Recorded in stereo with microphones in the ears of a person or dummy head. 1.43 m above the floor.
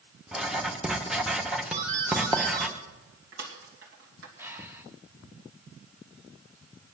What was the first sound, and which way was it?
Writing, centre (ahead or behind).